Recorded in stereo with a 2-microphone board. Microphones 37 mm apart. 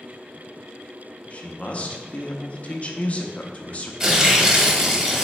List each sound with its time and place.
1.3 s a man speaking: 35° left (ahead or behind), 0.6 m
4.0 s tearing paper: 20° right (ahead or behind), 0.7 m